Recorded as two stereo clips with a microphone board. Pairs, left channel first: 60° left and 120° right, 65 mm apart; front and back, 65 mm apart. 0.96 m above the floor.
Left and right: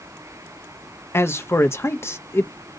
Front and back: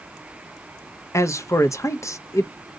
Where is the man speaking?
20° left, 0.5 m.